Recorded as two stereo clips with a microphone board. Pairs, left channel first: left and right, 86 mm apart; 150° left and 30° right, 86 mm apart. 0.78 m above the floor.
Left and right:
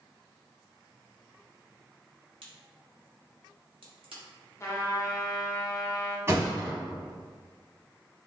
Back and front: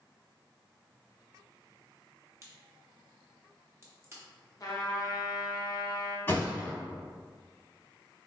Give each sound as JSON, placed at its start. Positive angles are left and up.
{"t": 2.4, "sound": "a crack", "azimuth_deg": -90, "distance_m": 0.8}
{"t": 4.6, "sound": "a trumpet", "azimuth_deg": 135, "distance_m": 0.7}
{"t": 6.3, "sound": "a thud", "azimuth_deg": -150, "distance_m": 1.1}